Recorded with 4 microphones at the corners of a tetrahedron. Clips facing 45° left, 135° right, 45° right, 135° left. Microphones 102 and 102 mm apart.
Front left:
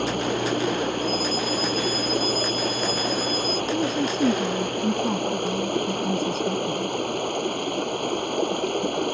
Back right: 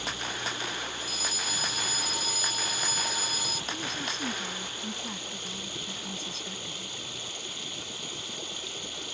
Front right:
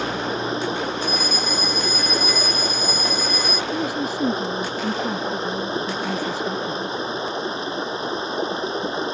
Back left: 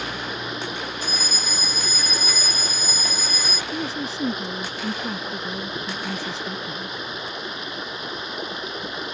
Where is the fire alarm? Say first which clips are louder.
Front left 13 dB, front right 6 dB; 135° right.